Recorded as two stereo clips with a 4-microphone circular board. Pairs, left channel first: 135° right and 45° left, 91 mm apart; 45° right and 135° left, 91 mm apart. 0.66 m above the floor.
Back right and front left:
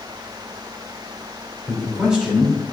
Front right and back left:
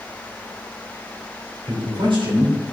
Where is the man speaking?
125° left, 2.5 m.